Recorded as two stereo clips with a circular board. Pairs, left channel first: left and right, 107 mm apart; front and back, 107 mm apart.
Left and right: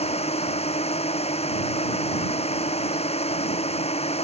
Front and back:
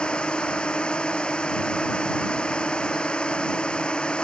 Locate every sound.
0.0 s a drone: 80° left